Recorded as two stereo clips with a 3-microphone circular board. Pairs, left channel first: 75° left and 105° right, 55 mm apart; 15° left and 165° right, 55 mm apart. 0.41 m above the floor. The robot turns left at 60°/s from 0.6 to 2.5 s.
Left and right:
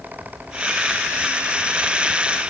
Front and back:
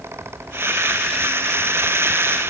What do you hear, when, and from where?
Only background noise.